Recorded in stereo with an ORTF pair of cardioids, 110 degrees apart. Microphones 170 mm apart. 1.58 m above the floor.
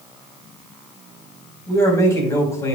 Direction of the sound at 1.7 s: 20° left.